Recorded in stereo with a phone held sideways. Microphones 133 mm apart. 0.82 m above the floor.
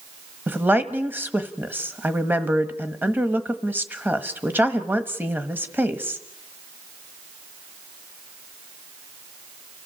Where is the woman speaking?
15° right (ahead or behind), 1.3 m.